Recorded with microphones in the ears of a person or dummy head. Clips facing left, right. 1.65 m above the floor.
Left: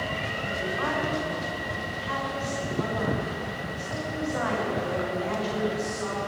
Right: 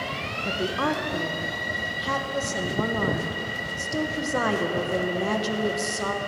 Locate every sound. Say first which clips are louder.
0.5 s a woman speaking: right 5 dB; 70° right (ahead or behind), 1.2 m